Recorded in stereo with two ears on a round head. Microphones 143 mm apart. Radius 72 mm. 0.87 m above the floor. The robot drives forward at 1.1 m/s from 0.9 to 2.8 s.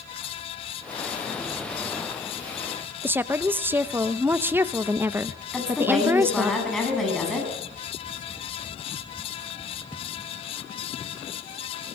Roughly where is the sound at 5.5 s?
Centre.